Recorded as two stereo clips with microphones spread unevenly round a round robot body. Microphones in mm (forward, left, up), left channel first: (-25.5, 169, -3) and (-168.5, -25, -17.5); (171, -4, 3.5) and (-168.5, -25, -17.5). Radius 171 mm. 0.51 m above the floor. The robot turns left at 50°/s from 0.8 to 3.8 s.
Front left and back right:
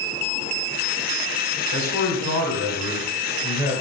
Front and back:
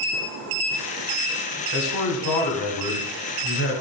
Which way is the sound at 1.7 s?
50° left.